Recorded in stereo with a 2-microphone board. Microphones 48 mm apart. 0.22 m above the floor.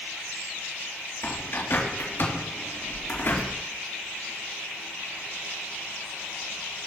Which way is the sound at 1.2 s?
60° left (ahead or behind).